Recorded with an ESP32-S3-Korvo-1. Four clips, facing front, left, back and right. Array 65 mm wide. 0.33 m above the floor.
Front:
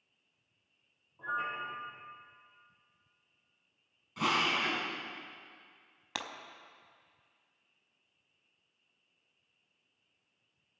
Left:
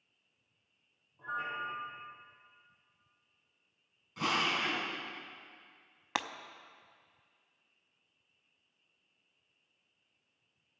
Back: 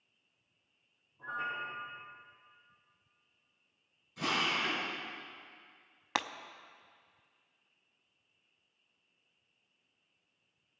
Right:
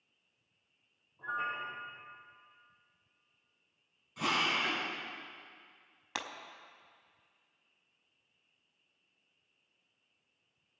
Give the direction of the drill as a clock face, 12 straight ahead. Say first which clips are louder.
Even, front 3 dB; 12 o'clock.